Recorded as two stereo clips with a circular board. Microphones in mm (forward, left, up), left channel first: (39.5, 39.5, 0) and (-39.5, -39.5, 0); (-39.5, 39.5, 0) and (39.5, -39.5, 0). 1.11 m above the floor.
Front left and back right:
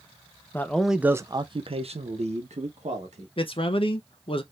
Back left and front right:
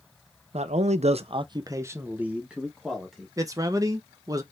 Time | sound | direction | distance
0.5 | a man speaking | 25° right | 0.6 m
3.4 | a man speaking | 10° left | 0.6 m